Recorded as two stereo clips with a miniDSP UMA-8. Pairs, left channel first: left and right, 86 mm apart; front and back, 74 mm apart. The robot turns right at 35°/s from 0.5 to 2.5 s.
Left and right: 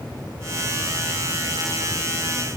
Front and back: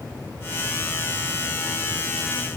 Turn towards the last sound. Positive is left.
No sound to turn to.